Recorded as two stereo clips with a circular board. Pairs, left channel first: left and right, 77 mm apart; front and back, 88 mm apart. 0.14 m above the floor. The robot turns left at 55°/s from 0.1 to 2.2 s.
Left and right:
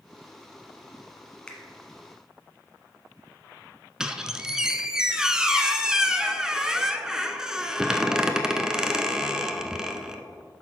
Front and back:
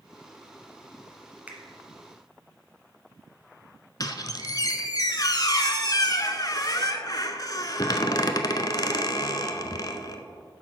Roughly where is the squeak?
Ahead.